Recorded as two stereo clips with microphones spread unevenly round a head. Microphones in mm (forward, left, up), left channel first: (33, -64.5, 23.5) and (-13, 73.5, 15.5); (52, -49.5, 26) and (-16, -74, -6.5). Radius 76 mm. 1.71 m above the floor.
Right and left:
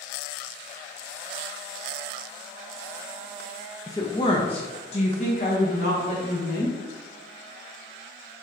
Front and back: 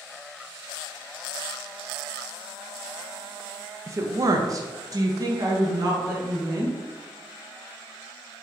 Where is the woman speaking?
105° right, 0.6 m; by 6.8 s 115° right, 2.0 m.